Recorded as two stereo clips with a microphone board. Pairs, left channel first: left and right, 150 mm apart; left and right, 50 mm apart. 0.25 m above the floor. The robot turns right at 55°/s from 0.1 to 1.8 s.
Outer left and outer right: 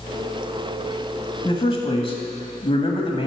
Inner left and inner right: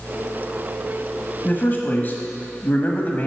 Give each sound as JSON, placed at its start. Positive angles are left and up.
{"t": 1.4, "sound": "a man speaking", "side_deg": 35, "distance_m": 1.2}